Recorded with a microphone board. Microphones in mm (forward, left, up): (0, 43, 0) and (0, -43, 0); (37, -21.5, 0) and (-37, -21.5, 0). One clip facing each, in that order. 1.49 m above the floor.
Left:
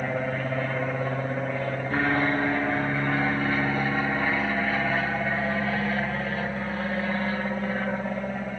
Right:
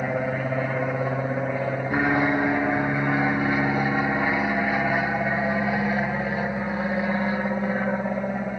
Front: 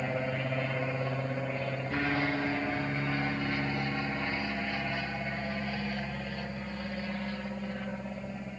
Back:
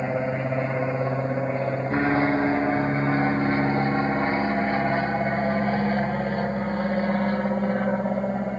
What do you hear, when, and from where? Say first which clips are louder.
0.0 s an aircraft: right 2 dB, back 7 dB; 160° right